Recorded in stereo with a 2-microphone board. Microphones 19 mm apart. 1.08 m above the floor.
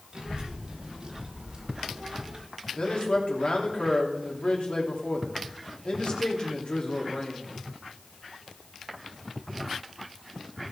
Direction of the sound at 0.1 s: 50° right (ahead or behind).